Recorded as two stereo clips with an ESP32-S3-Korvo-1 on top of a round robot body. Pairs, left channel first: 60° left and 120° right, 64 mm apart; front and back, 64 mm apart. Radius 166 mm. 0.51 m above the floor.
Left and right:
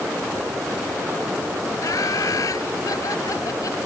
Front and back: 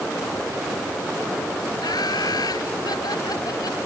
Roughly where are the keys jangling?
I don't hear keys jangling.